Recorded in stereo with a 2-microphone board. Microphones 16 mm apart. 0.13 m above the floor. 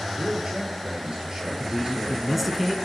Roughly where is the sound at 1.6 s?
Centre.